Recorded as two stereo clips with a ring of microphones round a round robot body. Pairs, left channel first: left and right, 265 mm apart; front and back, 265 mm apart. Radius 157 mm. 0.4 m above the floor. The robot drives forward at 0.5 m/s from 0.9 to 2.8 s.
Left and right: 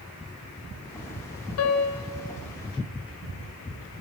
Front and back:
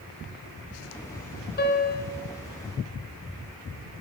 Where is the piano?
55° left, 2.5 m; by 2.1 s 60° left, 2.5 m.